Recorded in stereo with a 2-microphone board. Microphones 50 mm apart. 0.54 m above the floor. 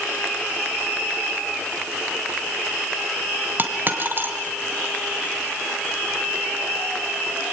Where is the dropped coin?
45° right (ahead or behind), 2 m.